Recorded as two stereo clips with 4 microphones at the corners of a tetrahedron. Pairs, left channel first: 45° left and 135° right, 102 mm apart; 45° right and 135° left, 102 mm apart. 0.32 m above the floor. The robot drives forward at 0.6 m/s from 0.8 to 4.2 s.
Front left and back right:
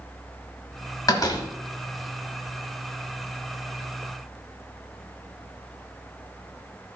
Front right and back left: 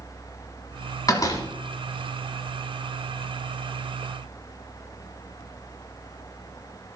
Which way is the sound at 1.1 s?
Straight ahead.